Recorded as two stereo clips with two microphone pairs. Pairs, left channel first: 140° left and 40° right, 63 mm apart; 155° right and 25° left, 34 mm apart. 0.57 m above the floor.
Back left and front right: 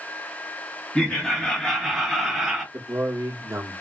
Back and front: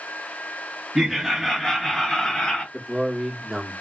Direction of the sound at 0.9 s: 95° left.